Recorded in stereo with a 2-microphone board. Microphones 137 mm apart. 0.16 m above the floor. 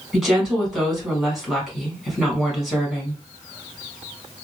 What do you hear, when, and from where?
0.1 s a woman speaking: centre (ahead or behind), 1.6 m